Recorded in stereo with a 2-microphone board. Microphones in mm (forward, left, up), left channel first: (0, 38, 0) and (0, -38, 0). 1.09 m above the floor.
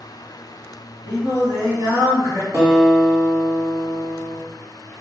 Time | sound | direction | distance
1.1 | singing | 50° right (ahead or behind) | 1.1 m
2.5 | a guitar | 50° right (ahead or behind) | 1.4 m